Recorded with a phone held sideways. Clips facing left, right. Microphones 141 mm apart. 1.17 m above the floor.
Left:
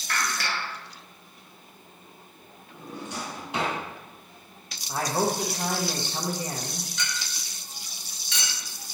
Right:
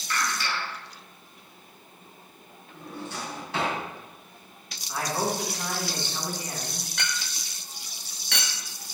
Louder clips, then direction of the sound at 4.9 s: Left 2 dB; 35° left (ahead or behind).